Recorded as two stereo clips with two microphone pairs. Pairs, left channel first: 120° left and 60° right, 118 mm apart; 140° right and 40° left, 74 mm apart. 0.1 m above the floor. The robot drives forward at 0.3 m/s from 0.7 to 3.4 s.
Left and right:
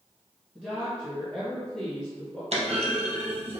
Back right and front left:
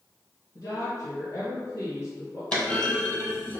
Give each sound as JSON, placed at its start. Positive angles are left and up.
{"t": 0.6, "sound": "a woman speaking", "azimuth_deg": -140, "distance_m": 1.9}
{"t": 2.5, "sound": "a clunk", "azimuth_deg": -70, "distance_m": 1.0}